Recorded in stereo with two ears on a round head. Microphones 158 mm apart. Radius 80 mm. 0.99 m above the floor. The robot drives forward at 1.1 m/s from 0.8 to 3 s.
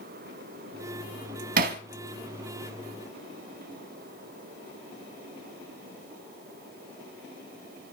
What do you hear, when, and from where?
1.6 s hammering: 50° right (ahead or behind), 1.8 m; by 1.8 s 55° right (ahead or behind), 1.7 m